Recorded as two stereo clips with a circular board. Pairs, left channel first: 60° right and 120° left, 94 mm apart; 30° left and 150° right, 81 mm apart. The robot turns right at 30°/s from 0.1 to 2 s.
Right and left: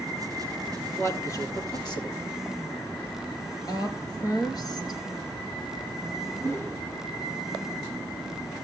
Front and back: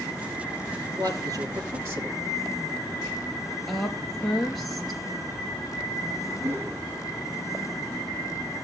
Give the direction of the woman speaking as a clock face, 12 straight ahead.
2 o'clock.